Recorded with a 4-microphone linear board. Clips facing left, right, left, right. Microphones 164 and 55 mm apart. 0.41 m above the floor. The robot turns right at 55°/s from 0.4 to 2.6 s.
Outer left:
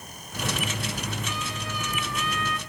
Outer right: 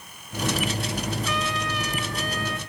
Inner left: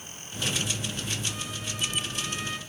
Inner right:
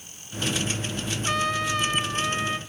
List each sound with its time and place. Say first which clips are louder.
1.2 s a trumpet: outer right 6 dB, inner right 11 dB; 100° right, 0.9 m; by 2.6 s 25° right, 0.9 m